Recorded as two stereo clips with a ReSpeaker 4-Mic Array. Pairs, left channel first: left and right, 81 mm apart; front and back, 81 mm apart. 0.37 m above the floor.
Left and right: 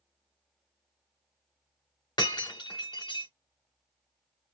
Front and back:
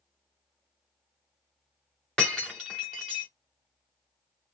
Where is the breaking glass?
85° left, 2.5 m.